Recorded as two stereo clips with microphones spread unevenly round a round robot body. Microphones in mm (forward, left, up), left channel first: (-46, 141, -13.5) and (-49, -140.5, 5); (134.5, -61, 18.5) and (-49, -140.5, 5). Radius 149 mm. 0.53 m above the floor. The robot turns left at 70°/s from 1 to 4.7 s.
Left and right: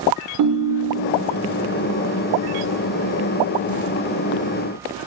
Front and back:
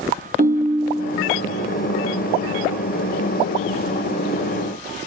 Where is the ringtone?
115° right, 1.1 m; by 1.2 s 130° right, 1.1 m.